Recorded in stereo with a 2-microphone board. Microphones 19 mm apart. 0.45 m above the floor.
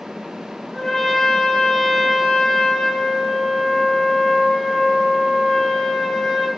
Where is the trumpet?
25° left (ahead or behind), 1.5 m.